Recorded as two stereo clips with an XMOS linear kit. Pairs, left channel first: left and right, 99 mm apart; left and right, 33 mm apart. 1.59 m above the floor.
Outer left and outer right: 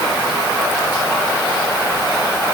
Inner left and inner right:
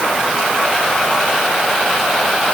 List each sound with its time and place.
Only background noise.